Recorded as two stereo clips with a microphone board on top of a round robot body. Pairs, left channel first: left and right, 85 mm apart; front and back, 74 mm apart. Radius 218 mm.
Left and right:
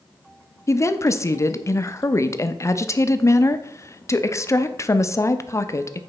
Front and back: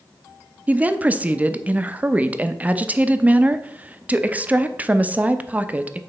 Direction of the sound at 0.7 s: 120° left.